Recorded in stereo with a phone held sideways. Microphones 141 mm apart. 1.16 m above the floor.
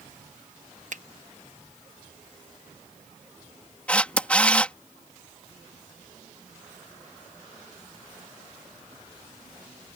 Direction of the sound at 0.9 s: 65° right (ahead or behind).